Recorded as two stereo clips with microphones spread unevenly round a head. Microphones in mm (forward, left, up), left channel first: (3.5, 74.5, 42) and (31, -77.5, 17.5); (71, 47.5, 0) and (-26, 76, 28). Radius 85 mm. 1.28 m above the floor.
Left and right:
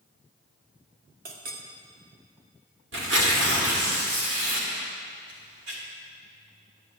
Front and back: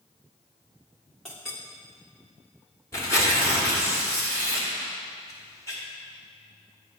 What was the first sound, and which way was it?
A clink, 115° right.